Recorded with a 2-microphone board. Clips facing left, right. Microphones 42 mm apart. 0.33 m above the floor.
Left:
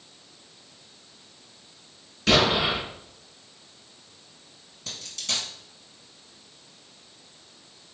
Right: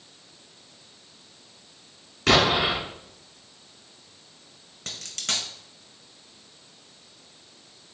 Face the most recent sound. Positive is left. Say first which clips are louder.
# right 1 dB
turn(degrees=-60)  # may be behind; listen again after turning